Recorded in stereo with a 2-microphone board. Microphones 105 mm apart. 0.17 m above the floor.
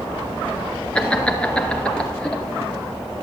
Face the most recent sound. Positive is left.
turn(degrees=10)  # may be behind; listen again after turning